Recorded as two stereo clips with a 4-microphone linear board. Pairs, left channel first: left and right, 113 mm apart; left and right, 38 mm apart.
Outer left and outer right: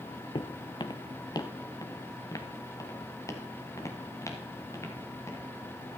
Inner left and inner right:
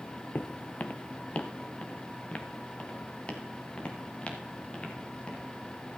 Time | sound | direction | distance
0.3 | footsteps | 50° left (ahead or behind) | 0.6 m